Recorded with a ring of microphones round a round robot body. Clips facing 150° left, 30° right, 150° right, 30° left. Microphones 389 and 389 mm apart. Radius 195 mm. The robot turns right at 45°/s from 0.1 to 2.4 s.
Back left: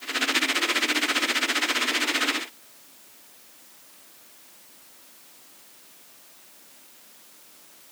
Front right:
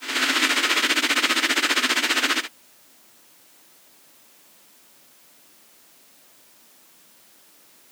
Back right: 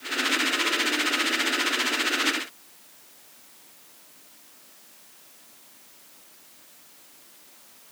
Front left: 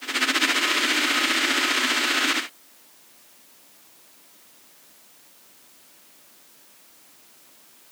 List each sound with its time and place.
Only background noise.